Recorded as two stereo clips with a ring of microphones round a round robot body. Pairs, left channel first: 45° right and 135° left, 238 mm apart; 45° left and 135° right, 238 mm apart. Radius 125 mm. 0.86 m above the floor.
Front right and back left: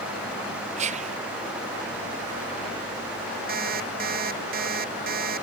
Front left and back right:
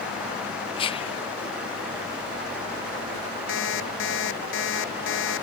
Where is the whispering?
95° left.